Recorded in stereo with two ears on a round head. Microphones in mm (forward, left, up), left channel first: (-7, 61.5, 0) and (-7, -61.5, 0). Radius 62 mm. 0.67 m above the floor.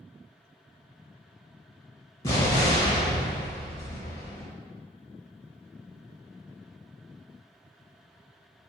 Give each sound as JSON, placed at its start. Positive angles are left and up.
{"t": 2.2, "sound": "an explosion", "side_deg": 25, "distance_m": 0.7}